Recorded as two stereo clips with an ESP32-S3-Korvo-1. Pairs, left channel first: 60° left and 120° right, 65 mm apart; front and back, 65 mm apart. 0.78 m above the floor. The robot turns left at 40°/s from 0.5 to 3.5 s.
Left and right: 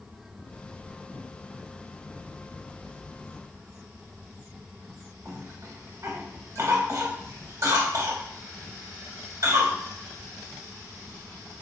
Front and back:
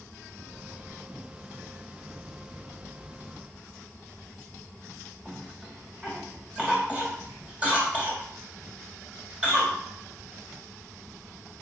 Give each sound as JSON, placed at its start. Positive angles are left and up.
{"t": 5.2, "sound": "a cough", "azimuth_deg": -110, "distance_m": 1.4}